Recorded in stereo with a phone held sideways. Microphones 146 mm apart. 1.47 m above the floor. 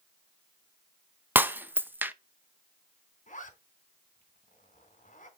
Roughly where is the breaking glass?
Centre.